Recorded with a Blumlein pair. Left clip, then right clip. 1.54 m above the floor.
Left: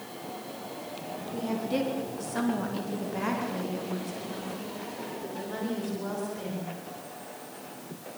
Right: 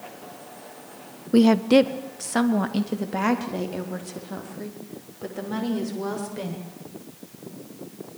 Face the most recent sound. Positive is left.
turn(degrees=-70)